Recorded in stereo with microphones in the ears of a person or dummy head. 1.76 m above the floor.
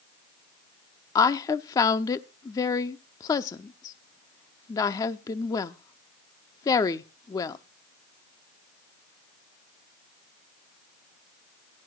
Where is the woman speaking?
25° left (ahead or behind), 0.7 m.